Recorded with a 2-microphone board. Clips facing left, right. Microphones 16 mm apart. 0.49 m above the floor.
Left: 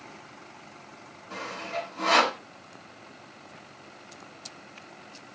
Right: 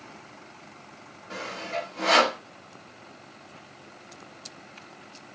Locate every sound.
1.3 s sawing: 50° right (ahead or behind), 2.5 m